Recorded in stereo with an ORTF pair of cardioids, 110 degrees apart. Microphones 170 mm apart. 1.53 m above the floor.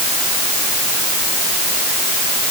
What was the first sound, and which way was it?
Only background noise.